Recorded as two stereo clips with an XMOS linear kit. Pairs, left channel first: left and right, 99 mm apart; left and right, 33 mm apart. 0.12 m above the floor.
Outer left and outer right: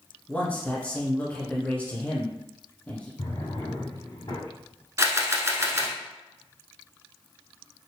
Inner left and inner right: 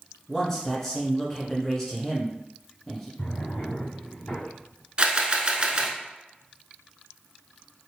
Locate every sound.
0.3 s a man speaking: 15° left (ahead or behind), 1.8 m
3.2 s a drawer: 55° left (ahead or behind), 1.8 m
5.0 s a camera shutter: 30° right (ahead or behind), 0.9 m